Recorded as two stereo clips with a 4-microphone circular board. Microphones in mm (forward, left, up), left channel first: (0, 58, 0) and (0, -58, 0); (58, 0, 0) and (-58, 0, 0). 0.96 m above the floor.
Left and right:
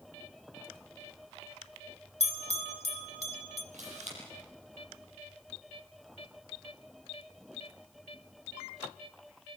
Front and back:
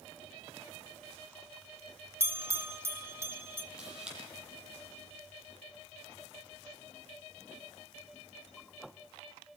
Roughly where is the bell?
Behind left.